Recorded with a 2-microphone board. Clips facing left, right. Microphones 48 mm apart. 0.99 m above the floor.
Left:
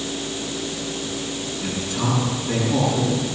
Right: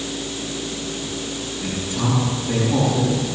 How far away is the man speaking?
About 7.5 m.